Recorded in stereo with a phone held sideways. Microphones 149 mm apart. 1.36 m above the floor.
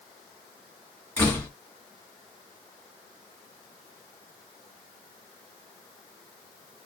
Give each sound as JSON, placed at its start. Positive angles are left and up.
{"t": 1.2, "sound": "a door slam", "side_deg": 10, "distance_m": 1.9}